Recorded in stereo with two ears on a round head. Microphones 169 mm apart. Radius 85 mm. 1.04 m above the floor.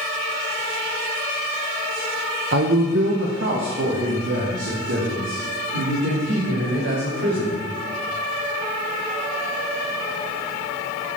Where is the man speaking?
50° right (ahead or behind), 0.8 m; by 7.6 s 65° right (ahead or behind), 4.5 m.